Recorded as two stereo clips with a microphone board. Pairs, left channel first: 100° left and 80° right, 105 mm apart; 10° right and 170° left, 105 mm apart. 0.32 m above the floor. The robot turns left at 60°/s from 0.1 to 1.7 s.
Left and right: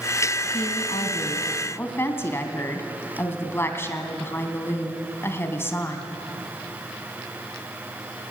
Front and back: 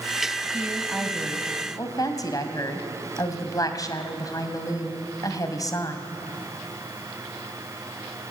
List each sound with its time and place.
0.5 s a woman speaking: 105° left, 2.5 m; by 6.1 s 35° left, 2.5 m